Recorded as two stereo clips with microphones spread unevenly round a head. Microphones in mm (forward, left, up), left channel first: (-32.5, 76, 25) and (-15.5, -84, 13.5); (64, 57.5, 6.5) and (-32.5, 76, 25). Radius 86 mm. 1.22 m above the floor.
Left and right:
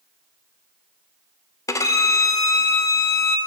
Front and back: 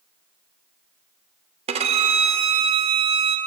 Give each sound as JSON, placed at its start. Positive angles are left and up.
{"t": 1.7, "sound": "a violin", "azimuth_deg": 165, "distance_m": 0.5}